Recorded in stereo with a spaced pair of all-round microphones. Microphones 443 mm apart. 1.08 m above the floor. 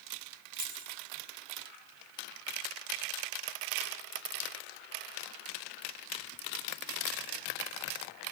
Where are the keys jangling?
45° left (ahead or behind), 4.5 m.